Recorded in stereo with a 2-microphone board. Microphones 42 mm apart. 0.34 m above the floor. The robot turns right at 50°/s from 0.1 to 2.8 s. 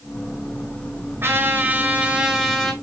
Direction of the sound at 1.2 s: 65° right.